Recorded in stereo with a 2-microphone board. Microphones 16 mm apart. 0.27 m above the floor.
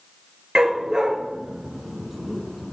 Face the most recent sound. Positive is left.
turn(degrees=20)  # may be behind; listen again after turning